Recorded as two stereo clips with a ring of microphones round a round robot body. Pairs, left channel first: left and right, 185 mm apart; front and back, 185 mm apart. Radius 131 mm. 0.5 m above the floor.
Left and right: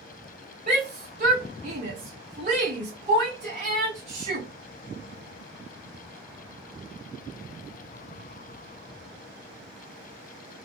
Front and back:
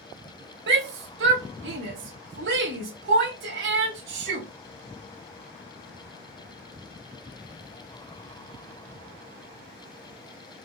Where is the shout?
145° right, 2 m.